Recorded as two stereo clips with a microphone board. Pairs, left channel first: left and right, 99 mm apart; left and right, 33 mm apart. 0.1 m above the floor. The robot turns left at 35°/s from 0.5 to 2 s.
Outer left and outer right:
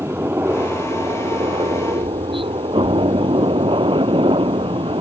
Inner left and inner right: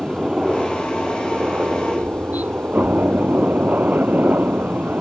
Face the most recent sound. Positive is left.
turn(degrees=-80)